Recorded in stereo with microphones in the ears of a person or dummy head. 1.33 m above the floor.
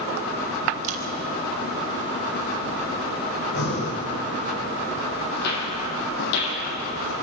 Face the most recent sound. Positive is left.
turn(degrees=65)  # may be behind; listen again after turning